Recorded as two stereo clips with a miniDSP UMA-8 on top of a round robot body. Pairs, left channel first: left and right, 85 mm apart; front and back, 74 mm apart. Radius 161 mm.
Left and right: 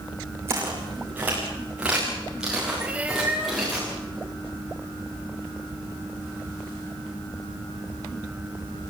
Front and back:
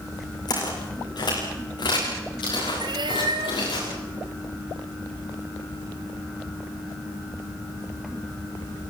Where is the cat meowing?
165° right, 1.3 m.